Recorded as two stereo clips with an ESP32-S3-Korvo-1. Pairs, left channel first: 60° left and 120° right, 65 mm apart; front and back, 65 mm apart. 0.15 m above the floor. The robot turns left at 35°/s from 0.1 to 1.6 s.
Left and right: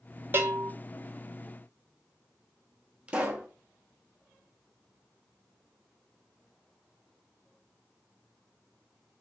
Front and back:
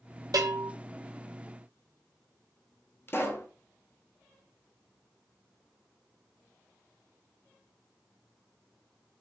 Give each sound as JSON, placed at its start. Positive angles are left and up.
{"t": 0.3, "sound": "a bell", "azimuth_deg": -175, "distance_m": 0.8}
{"t": 3.1, "sound": "a pop", "azimuth_deg": -50, "distance_m": 0.6}